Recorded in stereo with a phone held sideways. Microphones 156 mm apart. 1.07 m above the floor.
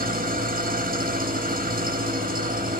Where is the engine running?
70° right (ahead or behind), 1.0 m.